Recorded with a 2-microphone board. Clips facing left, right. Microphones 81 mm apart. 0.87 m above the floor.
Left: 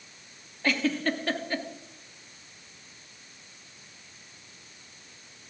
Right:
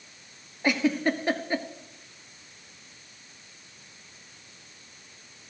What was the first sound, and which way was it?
A giggle, 15° right (ahead or behind).